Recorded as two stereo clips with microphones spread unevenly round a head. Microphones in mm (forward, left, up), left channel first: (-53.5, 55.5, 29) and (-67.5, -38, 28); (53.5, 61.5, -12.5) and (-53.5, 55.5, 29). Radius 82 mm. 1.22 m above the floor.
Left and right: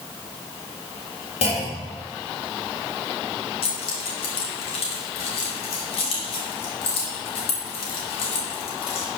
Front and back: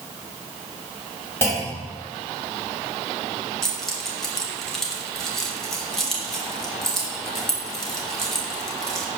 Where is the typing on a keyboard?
I don't hear typing on a keyboard.